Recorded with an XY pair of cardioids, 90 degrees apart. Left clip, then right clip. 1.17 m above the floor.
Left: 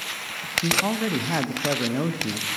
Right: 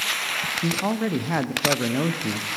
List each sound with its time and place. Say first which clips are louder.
0.6 s a man speaking: left 2 dB; 10° right, 0.9 m